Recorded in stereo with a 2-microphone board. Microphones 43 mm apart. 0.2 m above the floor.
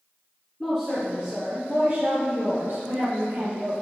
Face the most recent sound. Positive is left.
turn(degrees=-75)  # may be behind; listen again after turning